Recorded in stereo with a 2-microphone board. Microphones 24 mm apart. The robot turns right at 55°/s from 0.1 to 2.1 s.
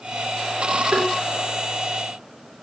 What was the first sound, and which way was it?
Tapping, 75° right (ahead or behind).